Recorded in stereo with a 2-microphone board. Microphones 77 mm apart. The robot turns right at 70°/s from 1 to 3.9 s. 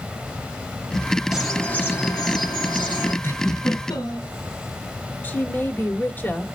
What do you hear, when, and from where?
1.3 s a bird: 10° right, 3 m; by 3.1 s 120° left, 3 m
3.2 s a giggle: 40° left, 3.5 m; by 4.3 s 85° left, 3.5 m
5.2 s a woman speaking: 25° left (ahead or behind), 1.3 m